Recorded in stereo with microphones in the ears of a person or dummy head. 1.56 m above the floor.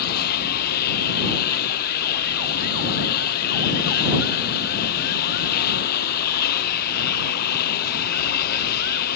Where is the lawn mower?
55° left (ahead or behind).